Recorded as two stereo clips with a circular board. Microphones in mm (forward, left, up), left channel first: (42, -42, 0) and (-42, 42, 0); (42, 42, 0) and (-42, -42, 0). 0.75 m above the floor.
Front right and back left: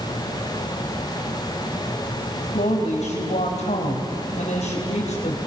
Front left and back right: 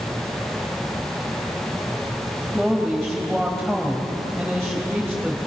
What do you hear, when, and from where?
2.5 s a woman speaking: 45° right, 3.5 m